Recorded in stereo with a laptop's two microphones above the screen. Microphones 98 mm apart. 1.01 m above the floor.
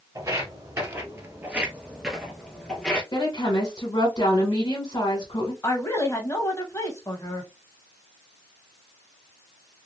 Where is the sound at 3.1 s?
60° left (ahead or behind), 1.5 m.